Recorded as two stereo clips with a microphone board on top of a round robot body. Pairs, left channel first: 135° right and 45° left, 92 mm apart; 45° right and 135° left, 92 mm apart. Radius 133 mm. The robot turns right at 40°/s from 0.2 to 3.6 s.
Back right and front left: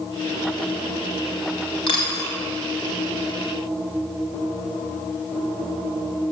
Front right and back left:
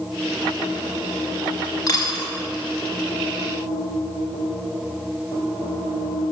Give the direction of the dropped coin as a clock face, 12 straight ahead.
3 o'clock.